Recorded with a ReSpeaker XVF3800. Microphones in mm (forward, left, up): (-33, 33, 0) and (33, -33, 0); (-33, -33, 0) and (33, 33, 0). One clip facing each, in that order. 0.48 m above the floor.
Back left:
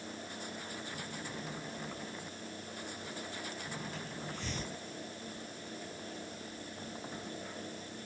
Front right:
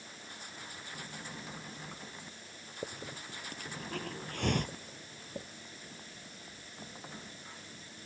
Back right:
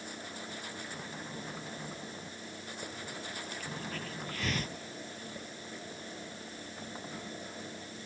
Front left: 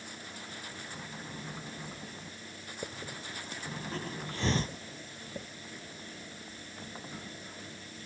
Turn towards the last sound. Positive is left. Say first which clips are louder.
# front right 4 dB, front left 3 dB
turn(degrees=-15)